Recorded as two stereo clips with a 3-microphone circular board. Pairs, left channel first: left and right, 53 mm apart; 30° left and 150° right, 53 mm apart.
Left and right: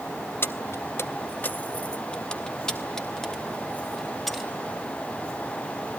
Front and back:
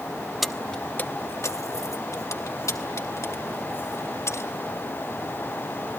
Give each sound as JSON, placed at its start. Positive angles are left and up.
{"t": 0.4, "sound": "keys jangling", "azimuth_deg": 120, "distance_m": 0.8}